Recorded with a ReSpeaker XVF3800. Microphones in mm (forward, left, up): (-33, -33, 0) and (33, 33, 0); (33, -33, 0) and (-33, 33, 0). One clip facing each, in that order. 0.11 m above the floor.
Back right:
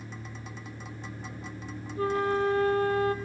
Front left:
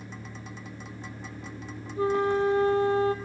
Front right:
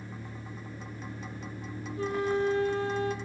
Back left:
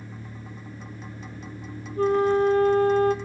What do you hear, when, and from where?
0.0 s an engine running: 35° left, 6.5 m
2.0 s a flute: 110° left, 1.2 m